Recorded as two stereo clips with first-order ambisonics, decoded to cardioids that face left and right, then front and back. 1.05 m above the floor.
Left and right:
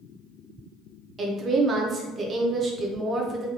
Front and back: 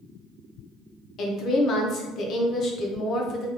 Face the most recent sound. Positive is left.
turn(degrees=-30)